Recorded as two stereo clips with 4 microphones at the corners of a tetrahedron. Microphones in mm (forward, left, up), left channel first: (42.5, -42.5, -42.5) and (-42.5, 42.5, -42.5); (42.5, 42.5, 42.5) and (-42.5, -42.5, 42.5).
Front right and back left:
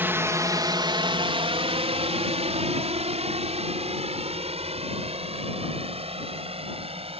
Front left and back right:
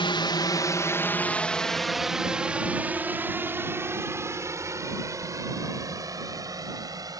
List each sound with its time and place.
0.0 s a drone: 65° left; by 7.2 s 170° left